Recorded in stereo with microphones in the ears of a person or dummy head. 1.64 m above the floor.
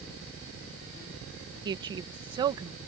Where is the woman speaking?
25° right (ahead or behind).